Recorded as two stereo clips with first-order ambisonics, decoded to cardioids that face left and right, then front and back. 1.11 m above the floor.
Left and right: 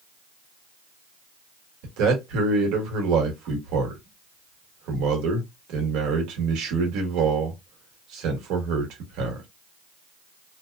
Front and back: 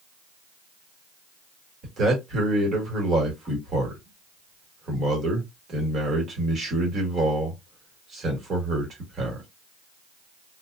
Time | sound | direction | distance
1.8 | a man speaking | 115° right | 1.2 m